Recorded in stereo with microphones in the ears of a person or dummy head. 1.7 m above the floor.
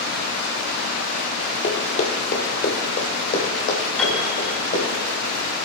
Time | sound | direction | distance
1.6 | running footsteps | 40° left (ahead or behind) | 2.5 m
4.0 | a piano | 5° left (ahead or behind) | 4 m